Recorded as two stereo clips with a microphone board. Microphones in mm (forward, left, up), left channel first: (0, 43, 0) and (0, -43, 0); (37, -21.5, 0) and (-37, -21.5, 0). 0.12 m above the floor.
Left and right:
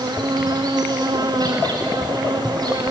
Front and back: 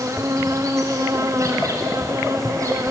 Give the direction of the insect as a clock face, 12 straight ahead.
4 o'clock.